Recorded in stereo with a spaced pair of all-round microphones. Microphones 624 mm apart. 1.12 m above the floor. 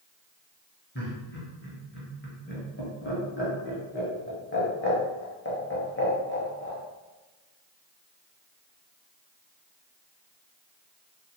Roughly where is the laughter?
Centre.